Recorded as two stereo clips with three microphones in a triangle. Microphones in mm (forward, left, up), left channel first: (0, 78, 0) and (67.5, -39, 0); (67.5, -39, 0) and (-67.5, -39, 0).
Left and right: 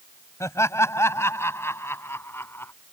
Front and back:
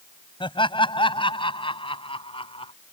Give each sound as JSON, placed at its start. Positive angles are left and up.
{"t": 0.4, "sound": "laughter", "azimuth_deg": 50}